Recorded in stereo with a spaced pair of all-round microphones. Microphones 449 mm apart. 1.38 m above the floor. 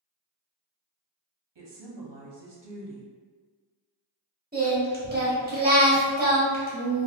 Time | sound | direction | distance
1.6 | a woman speaking | 65° right (ahead or behind) | 0.7 m
4.5 | singing | 20° right (ahead or behind) | 1.0 m